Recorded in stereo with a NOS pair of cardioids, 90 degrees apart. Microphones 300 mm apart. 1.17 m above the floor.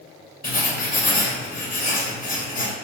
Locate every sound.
0.4 s writing: 25° left, 0.7 m